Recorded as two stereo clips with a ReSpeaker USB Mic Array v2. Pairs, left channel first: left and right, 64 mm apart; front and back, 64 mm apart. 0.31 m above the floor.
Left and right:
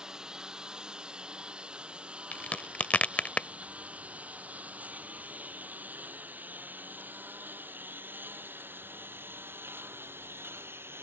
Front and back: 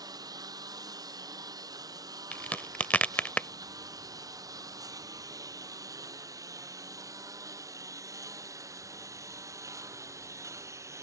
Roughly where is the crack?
Ahead left.